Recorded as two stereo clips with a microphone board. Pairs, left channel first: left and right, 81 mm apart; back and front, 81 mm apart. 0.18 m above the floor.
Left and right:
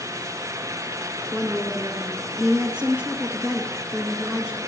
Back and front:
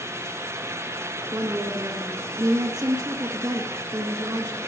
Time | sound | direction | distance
1.3 | a woman speaking | 20° right | 2 m